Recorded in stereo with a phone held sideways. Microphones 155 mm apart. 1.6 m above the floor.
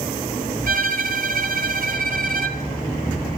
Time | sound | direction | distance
0.7 | a violin | 65° right (ahead or behind) | 1.9 m